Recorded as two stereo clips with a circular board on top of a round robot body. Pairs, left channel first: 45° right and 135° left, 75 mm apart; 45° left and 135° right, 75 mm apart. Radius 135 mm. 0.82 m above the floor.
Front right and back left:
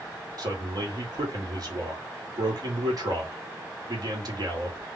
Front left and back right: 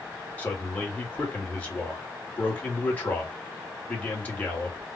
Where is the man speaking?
110° left, 2 m.